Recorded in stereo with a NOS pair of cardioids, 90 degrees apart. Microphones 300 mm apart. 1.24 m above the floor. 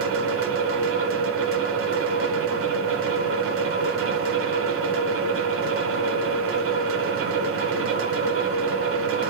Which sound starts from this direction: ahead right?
A fan, at 0.0 s.